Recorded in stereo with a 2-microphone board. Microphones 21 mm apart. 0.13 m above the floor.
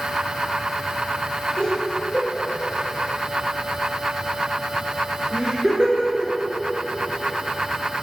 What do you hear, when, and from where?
1.6 s laughter: 40° left (ahead or behind), 2.5 m; by 6.3 s 55° right (ahead or behind), 2.5 m